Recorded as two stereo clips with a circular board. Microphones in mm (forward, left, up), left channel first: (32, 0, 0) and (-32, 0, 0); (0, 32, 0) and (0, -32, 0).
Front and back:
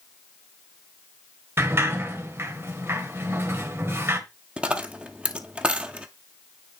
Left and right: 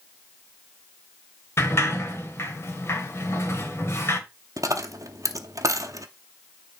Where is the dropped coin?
110° right, 0.7 m.